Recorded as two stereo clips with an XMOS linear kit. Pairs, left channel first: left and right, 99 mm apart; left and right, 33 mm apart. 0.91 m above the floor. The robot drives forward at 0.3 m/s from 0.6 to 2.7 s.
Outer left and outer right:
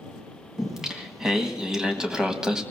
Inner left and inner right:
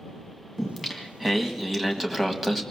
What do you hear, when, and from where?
0.6 s singing: 5° right (ahead or behind), 1.9 m; by 2.6 s 10° right (ahead or behind), 1.4 m